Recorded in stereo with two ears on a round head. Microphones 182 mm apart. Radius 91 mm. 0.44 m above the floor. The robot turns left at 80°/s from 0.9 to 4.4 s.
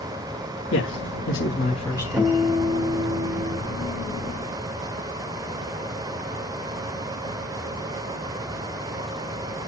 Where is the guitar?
15° right, 2 m; by 3.6 s 125° right, 2 m.